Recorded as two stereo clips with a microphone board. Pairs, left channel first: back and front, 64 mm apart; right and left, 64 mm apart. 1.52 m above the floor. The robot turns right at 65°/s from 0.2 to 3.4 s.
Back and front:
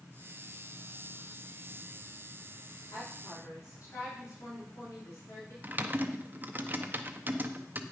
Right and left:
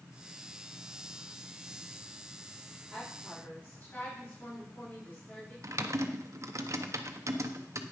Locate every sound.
2.9 s a woman speaking: straight behind, 4.5 m; by 5.5 s 150° right, 4.5 m
5.6 s typing on a keyboard: 55° left, 0.7 m